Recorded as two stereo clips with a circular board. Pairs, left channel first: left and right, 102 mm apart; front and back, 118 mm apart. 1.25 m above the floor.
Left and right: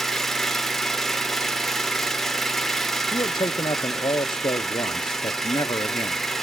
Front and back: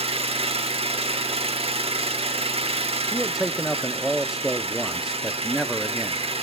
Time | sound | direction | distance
0.0 | an engine running | 175° left | 1.2 m
3.1 | a man speaking | 95° left | 0.7 m